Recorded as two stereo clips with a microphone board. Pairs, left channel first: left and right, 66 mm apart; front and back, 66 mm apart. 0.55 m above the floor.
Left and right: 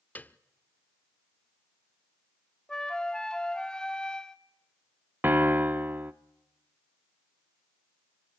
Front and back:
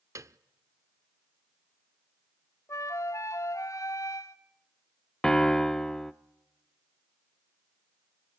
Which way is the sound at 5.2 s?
75° right.